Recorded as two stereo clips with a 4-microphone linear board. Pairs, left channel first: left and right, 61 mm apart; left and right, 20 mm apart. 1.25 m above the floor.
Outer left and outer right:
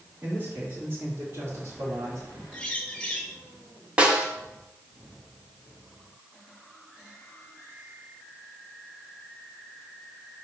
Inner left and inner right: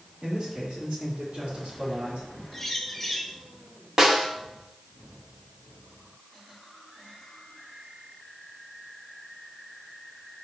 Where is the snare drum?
20° right (ahead or behind), 1.1 m.